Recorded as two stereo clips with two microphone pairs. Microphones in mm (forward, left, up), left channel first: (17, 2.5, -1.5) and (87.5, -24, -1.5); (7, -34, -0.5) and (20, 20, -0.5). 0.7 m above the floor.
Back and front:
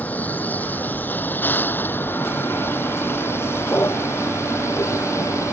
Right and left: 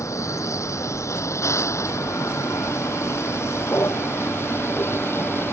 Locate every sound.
0.0 s a vehicle: 130° right; by 5.5 s 150° right